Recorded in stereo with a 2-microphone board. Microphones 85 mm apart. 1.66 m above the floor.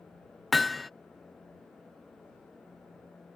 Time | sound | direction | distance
0.5 | hammering | centre (ahead or behind) | ?